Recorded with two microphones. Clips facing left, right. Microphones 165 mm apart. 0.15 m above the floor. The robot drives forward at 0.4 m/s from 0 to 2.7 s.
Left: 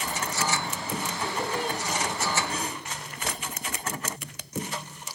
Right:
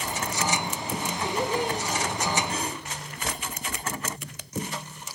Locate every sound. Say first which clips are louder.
1.2 s laughter: right 4 dB; 35° right (ahead or behind), 5 m